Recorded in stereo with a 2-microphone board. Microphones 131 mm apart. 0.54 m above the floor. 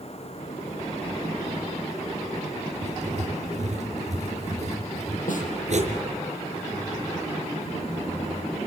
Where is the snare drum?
80° left, 7 m.